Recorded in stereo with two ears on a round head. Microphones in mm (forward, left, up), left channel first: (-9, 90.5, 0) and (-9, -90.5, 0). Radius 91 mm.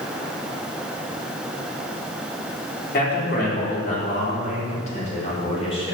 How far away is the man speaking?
About 4 m.